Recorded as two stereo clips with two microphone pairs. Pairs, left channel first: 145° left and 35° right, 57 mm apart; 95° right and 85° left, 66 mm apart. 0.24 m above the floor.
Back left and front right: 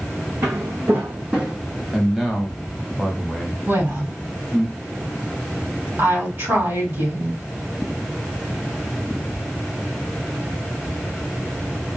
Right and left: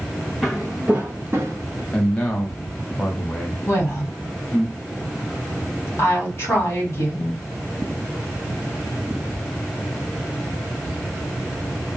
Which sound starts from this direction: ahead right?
A woman speaking, at 3.7 s.